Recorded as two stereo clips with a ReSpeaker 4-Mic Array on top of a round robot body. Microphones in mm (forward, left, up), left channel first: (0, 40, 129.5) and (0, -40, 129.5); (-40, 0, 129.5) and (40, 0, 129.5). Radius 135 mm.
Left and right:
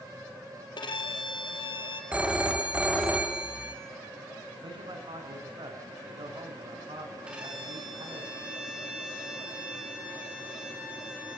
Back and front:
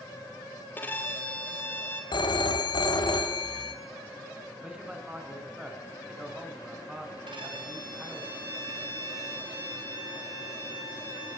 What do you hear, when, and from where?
0.8 s a violin: 115° left, 2.5 m
2.1 s a phone ringing: 165° right, 3 m
4.6 s a man speaking: 80° right, 4.5 m
7.3 s a violin: 15° right, 6 m